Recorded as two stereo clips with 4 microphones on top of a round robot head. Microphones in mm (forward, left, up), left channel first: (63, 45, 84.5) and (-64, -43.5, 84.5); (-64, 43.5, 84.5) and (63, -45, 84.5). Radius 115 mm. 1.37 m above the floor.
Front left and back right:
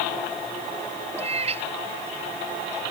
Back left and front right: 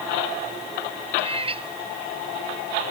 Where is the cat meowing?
90° right; by 2.8 s 95° right.